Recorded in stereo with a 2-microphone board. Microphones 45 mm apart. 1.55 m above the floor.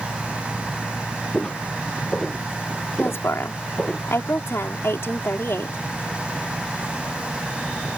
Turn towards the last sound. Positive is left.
turn(degrees=70)  # may be behind; listen again after turning